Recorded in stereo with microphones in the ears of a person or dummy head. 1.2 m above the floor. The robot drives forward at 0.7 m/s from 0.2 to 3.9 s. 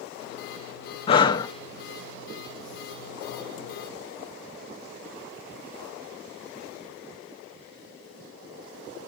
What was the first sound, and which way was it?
Breathing, 30° left (ahead or behind).